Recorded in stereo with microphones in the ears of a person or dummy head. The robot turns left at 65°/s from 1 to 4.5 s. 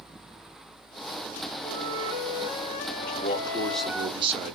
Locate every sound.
1.6 s a flute: 150° left, 1.5 m; by 4.1 s 10° right, 1.5 m
3.1 s a man speaking: 45° left, 1.0 m; by 4.5 s 45° right, 1.0 m